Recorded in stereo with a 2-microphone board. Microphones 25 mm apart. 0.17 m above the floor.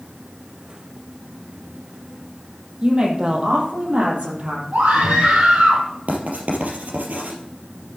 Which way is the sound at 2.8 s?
35° right (ahead or behind).